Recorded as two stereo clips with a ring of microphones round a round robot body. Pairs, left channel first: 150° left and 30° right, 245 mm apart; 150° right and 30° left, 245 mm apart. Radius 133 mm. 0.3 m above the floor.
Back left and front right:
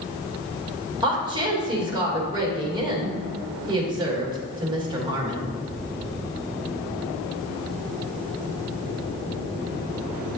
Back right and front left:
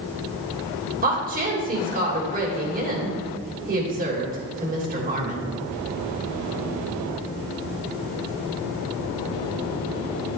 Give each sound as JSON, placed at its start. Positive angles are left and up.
{"t": 1.0, "sound": "a woman speaking", "azimuth_deg": 30, "distance_m": 1.5}